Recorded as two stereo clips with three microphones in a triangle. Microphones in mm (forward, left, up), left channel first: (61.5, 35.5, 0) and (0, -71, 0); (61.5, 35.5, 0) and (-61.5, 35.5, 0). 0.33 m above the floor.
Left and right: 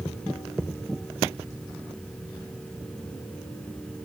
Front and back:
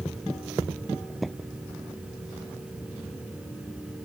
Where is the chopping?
No chopping in this recording.